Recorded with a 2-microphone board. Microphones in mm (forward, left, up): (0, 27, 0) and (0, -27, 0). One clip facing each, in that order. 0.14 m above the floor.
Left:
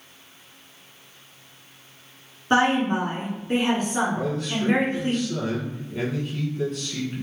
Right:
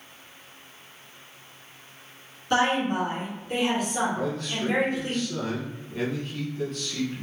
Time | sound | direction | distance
2.5 | a woman speaking | 35° left (ahead or behind) | 1.6 m
4.2 | a man speaking | 5° left (ahead or behind) | 1.2 m